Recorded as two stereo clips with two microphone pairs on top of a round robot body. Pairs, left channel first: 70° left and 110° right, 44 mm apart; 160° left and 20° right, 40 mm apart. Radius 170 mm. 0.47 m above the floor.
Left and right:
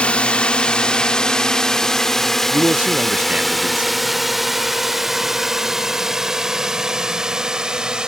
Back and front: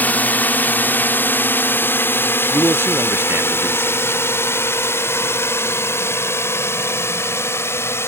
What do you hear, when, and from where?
0.0 s a drone: 125° left; by 8.1 s 175° left
2.5 s a man speaking: 50° right